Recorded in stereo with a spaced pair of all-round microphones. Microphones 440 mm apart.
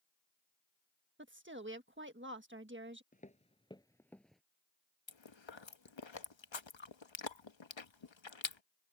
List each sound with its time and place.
1.2 s a woman speaking: 25° right (ahead or behind)
3.1 s footsteps: 20° left (ahead or behind); by 4.4 s centre (ahead or behind)
5.1 s chewing: 80° left